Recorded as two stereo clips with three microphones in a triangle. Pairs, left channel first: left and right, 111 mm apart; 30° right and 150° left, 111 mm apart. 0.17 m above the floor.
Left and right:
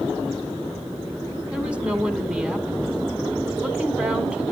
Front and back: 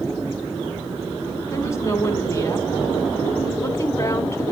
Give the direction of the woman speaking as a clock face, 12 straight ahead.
1 o'clock.